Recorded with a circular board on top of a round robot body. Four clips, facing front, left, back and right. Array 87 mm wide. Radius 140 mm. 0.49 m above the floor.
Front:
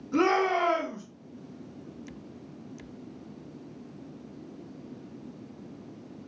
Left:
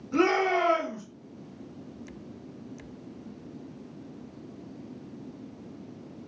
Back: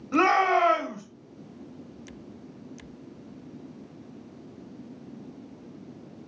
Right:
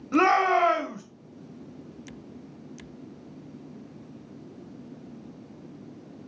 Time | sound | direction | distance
0.1 | a shout | 125° right | 1.3 m